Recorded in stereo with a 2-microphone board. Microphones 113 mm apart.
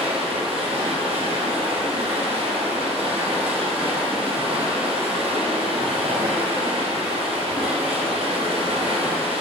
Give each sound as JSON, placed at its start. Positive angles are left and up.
{"t": 0.0, "sound": "running water", "side_deg": -60, "distance_m": 3.0}